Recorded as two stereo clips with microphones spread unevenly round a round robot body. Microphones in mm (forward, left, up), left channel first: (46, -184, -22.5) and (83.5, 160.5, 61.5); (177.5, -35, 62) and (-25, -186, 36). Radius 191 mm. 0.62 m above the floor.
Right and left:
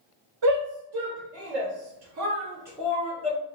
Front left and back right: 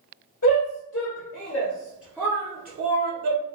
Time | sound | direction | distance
0.4 | a shout | 65° left | 2.0 m